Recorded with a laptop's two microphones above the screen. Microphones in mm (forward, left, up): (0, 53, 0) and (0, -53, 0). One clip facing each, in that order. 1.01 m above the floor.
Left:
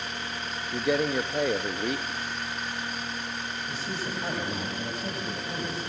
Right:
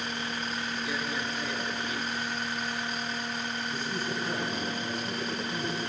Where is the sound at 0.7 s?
60° left (ahead or behind), 1.1 m.